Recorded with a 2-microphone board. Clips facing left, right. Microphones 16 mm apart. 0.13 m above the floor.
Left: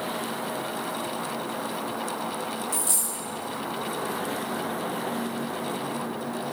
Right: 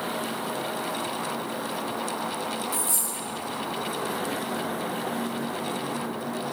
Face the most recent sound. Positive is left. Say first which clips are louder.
# even
turn(degrees=40)  # may be behind; listen again after turning